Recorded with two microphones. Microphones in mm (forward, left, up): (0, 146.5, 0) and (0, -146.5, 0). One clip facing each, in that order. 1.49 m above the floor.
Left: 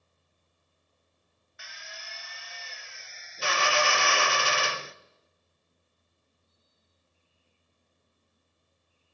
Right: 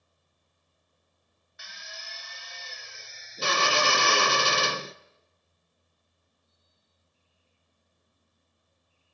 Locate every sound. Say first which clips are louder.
1.6 s a drill: even; 45° right (ahead or behind), 0.8 m